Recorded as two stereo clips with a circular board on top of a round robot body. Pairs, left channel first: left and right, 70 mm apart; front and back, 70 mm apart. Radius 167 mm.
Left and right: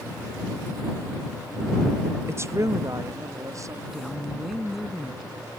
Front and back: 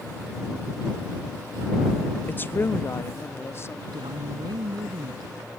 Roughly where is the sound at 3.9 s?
Behind.